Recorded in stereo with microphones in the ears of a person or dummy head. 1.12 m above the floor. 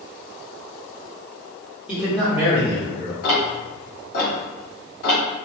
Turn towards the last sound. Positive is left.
turn(degrees=55)  # may be behind; listen again after turning